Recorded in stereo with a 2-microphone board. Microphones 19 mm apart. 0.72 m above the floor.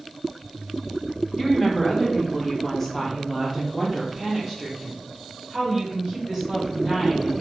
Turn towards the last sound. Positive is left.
turn(degrees=-10)  # may be behind; listen again after turning